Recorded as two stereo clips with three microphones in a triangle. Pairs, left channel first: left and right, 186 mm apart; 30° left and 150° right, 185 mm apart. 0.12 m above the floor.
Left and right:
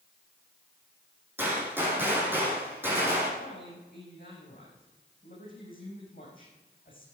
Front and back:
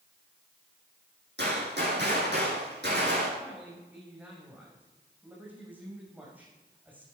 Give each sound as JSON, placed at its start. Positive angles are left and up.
{"t": 1.4, "sound": "a gunshot", "azimuth_deg": -170, "distance_m": 5.5}
{"t": 3.4, "sound": "a man speaking", "azimuth_deg": 130, "distance_m": 6.0}